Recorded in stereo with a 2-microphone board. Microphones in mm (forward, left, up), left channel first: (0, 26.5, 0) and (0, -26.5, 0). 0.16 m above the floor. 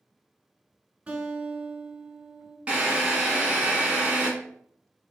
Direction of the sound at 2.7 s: 25° right (ahead or behind).